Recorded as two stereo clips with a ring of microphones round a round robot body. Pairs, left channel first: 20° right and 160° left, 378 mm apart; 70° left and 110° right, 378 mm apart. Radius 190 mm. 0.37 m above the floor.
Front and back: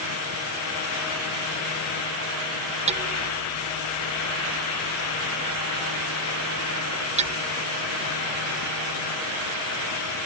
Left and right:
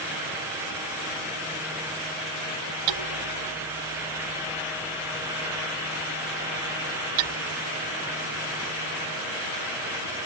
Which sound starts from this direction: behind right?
Hammering, at 2.9 s.